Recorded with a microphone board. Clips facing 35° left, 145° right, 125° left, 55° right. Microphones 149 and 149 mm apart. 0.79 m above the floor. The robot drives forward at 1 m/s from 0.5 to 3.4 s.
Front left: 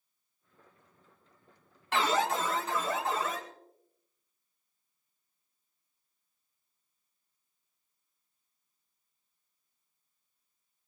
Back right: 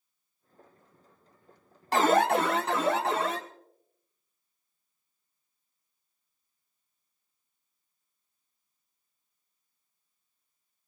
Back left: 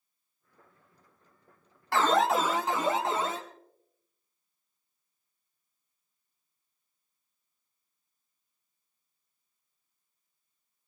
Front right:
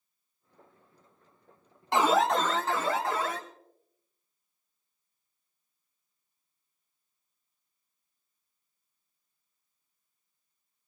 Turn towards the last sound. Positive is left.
turn(degrees=-170)